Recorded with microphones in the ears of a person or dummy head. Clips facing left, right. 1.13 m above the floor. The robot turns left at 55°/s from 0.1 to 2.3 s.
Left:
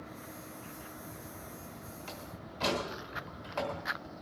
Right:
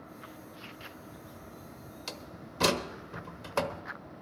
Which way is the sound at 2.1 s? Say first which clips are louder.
Right 1 dB; 50° right (ahead or behind).